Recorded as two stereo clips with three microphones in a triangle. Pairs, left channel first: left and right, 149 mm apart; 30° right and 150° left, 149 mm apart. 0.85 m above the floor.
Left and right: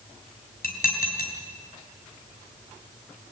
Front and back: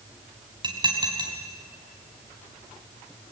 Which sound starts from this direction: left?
Dishes clattering, at 0.6 s.